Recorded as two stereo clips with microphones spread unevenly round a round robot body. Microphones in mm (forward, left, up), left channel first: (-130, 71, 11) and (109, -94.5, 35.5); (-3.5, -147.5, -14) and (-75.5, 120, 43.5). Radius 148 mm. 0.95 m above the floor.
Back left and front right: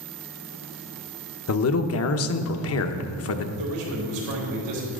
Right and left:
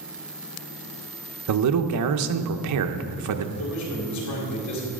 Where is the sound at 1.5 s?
125° left, 0.9 m.